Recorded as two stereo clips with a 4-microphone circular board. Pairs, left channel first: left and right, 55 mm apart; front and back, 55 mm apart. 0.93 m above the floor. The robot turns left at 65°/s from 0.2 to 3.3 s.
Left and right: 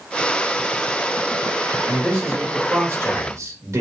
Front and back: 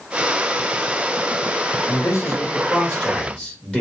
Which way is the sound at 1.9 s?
25° left.